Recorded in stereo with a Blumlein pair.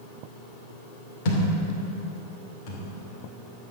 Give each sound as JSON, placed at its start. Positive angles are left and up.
{"t": 1.2, "sound": "a thud", "azimuth_deg": 45, "distance_m": 2.5}